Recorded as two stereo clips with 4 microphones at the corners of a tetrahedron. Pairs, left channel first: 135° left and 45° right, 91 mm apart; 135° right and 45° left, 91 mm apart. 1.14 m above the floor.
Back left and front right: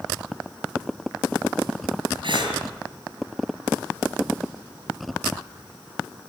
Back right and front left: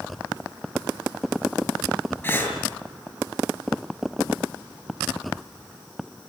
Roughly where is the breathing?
Right.